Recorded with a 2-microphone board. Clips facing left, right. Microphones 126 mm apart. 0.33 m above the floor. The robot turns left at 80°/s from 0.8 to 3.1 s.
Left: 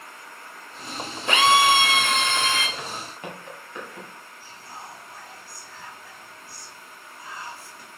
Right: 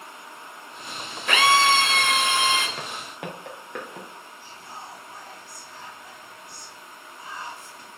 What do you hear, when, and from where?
1.3 s a drill: 25° left (ahead or behind), 1.5 m; by 2.7 s 20° right (ahead or behind), 1.5 m
2.8 s footsteps: 55° right (ahead or behind), 3.5 m
4.4 s whispering: 20° right (ahead or behind), 2.5 m